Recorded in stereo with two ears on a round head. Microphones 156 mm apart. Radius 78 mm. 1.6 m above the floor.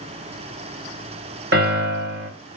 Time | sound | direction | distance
1.5 | a piano | 55° right (ahead or behind) | 2 m